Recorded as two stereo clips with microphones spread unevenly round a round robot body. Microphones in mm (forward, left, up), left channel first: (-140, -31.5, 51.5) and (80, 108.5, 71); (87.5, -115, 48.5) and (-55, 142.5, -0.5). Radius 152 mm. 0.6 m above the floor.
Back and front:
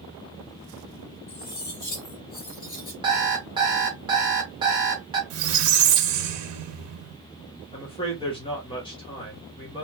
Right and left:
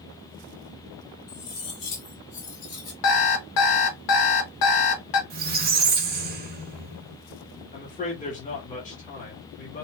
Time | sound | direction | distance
1.3 | cutlery clinking | 90° right | 1.7 m
3.0 | an alarm clock | 45° right | 0.8 m
5.3 | a squeak | 55° left | 0.7 m
7.7 | a man speaking | 115° right | 1.2 m